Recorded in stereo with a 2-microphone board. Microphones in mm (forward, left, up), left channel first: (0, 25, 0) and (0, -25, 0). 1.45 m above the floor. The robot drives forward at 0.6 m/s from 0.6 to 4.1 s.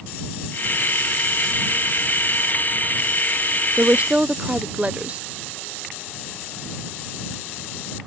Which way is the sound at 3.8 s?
35° right (ahead or behind).